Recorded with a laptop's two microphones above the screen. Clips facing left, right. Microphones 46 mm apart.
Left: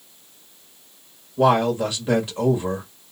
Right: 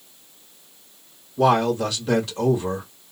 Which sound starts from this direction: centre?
A man speaking, at 1.4 s.